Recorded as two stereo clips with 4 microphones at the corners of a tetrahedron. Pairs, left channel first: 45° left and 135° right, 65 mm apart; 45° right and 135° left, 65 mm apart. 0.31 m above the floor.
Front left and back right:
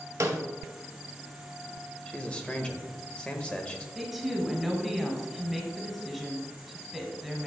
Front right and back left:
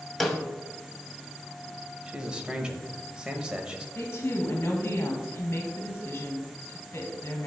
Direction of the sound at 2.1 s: 85° left.